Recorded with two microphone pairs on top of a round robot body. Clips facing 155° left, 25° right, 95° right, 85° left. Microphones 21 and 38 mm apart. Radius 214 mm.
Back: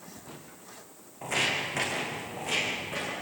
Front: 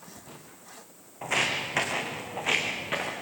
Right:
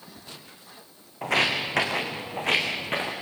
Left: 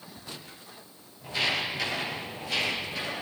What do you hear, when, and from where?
1.2 s footsteps: 95° right, 3 m; by 3.1 s 70° right, 4 m